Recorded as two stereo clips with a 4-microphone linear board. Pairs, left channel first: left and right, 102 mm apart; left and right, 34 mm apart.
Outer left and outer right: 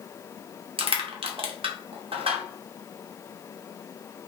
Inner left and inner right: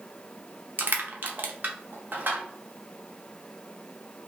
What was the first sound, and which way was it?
Crushing, 60° right (ahead or behind).